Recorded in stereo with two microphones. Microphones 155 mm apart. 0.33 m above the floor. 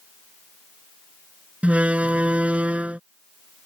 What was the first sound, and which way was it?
A door slam, 10° right (ahead or behind).